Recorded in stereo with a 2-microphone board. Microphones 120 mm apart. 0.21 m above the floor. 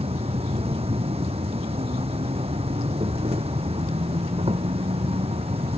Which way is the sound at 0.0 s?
55° right (ahead or behind).